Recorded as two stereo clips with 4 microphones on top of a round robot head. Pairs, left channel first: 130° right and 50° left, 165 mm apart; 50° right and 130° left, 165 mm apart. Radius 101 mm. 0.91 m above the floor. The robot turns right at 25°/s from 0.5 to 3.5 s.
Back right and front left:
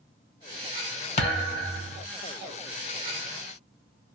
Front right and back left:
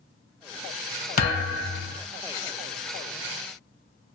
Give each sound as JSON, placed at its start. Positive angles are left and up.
{"t": 1.2, "sound": "a thud", "azimuth_deg": -80, "distance_m": 0.9}